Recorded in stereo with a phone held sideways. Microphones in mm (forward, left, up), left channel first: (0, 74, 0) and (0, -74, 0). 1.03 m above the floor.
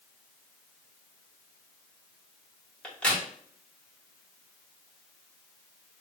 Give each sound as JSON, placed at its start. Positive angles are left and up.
{"t": 2.8, "sound": "a crack", "side_deg": 5, "distance_m": 1.5}